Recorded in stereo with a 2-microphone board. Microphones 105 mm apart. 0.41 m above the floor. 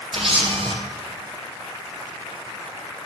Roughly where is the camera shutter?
Right.